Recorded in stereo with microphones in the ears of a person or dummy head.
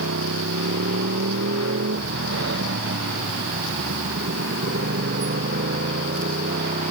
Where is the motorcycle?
75° right (ahead or behind); by 6.9 s 50° right (ahead or behind).